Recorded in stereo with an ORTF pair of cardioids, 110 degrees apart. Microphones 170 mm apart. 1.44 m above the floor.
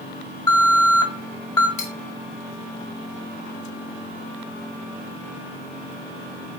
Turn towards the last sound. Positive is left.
turn(degrees=50)